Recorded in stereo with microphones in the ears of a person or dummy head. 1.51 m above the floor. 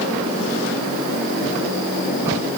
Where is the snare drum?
No snare drum in this recording.